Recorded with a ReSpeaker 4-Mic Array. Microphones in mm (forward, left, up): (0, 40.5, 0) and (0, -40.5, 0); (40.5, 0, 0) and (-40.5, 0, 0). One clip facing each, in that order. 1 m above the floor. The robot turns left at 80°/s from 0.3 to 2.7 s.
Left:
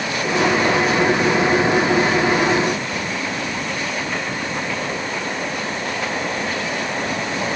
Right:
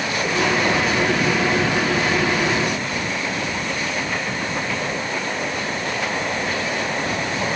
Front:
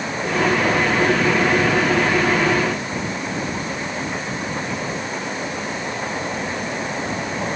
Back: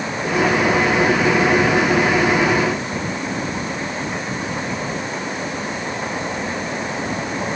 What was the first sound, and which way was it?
Only background noise.